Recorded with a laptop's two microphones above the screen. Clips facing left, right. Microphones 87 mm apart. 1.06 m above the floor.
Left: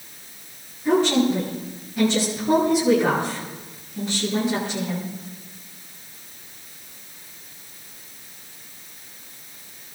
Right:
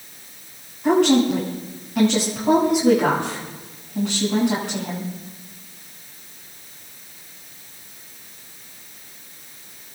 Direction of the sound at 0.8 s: 80° right.